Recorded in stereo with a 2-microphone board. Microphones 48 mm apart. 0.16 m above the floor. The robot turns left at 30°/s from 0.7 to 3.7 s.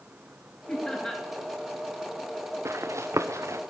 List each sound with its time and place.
0.7 s laughter: 20° left (ahead or behind), 2.5 m; by 1.2 s 5° left (ahead or behind), 2.5 m
2.6 s running footsteps: 65° right (ahead or behind), 1.0 m; by 3.6 s 80° right, 1.0 m